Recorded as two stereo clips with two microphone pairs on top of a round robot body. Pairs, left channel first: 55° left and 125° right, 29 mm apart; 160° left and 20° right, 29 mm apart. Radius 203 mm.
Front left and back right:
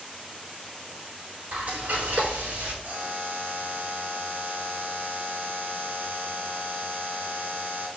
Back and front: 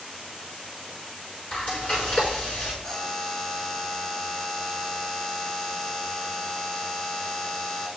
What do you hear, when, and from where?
1.5 s frying: 160° right, 3.5 m
2.8 s a buzzer: 145° right, 3.5 m